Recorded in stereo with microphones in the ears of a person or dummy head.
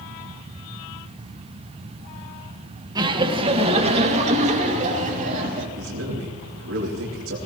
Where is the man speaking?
80° right, 3 m.